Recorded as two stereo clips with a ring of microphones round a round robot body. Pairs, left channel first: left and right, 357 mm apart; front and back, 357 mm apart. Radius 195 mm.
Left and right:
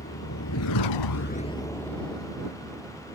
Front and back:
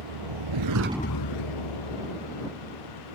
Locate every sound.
0.0 s a vehicle: 160° left; by 3.1 s 5° right